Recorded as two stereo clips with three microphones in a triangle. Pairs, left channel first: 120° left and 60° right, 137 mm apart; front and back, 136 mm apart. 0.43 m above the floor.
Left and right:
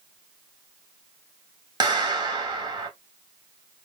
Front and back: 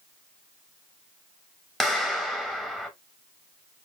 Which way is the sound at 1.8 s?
85° right.